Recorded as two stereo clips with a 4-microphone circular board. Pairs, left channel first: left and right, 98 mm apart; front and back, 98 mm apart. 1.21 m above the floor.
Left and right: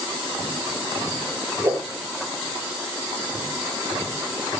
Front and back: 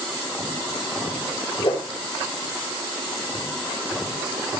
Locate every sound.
1.6 s a whoosh: 25° right, 9 m